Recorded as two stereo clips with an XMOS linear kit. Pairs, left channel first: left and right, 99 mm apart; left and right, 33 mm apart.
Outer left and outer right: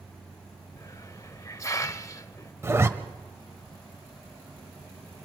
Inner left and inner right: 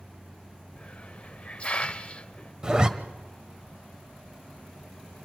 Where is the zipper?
25° right (ahead or behind), 1.0 m.